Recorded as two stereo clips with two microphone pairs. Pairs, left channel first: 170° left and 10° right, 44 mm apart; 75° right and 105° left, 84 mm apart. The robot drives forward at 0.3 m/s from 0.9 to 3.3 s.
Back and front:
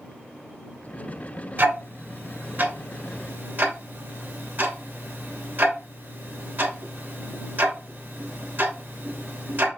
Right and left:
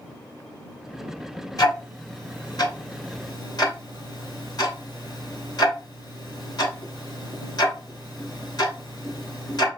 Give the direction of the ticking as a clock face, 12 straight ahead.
1 o'clock.